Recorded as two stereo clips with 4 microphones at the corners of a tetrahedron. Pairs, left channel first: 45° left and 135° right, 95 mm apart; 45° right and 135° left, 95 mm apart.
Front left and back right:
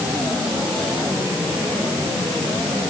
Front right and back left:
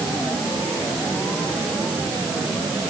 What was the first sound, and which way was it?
Only background noise.